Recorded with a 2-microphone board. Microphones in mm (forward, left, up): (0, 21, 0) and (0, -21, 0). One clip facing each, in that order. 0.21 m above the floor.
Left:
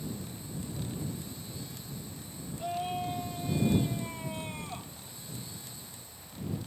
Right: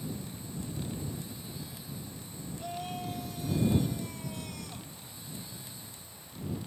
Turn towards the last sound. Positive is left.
turn(degrees=35)  # may be behind; listen again after turning